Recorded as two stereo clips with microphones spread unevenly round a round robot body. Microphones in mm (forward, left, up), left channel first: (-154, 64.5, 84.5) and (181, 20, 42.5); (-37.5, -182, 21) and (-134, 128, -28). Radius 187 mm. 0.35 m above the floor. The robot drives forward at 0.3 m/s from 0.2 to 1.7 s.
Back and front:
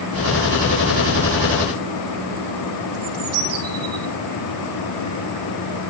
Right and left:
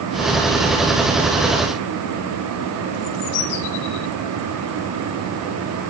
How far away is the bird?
About 3.5 m.